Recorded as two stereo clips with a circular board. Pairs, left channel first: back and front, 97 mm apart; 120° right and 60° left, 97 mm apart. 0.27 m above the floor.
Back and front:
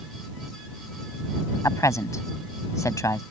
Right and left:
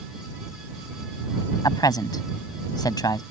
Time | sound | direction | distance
1.6 | a man speaking | 140° right | ?